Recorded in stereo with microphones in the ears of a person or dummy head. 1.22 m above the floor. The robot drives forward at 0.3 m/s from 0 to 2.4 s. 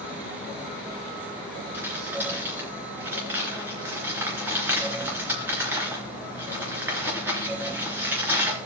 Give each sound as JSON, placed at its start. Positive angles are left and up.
{"t": 1.7, "sound": "crumpling", "side_deg": -15, "distance_m": 3.0}